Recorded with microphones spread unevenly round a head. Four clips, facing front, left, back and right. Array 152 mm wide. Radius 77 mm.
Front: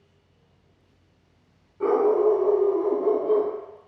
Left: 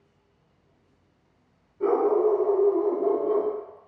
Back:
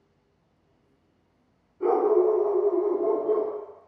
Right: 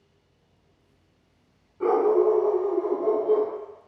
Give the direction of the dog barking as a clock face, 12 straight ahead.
1 o'clock.